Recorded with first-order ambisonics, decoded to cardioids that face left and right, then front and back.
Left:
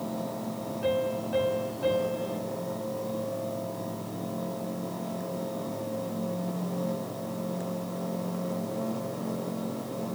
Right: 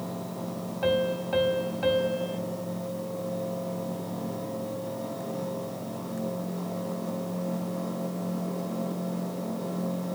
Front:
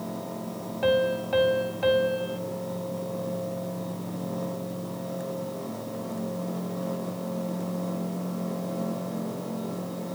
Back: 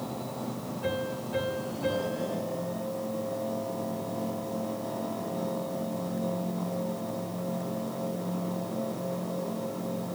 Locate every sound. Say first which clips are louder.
0.8 s a piano: right 2 dB, front 10 dB; 30° right, 2.5 m